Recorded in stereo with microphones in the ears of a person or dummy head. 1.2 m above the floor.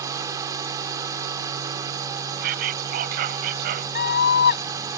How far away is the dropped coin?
No dropped coin in this recording.